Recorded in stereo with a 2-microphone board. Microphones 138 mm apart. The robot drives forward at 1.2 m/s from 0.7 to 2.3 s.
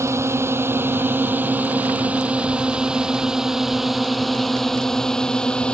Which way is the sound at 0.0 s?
20° right (ahead or behind).